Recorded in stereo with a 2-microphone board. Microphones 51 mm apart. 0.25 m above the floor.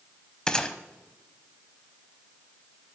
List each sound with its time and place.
0.5 s a gunshot: 15° left (ahead or behind), 0.6 m